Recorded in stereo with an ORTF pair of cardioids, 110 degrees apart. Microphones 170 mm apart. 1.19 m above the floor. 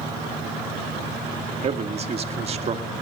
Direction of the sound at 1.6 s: 35° right.